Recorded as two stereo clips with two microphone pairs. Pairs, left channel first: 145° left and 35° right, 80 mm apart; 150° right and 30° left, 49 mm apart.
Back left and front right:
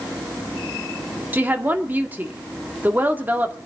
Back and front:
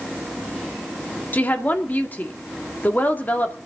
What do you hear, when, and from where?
1.3 s a woman speaking: 105° right, 1.8 m